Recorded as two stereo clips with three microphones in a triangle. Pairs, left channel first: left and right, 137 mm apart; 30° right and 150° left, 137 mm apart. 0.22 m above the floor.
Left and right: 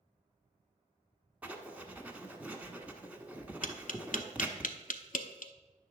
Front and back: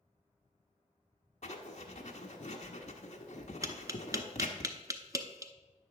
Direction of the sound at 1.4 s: 10° right.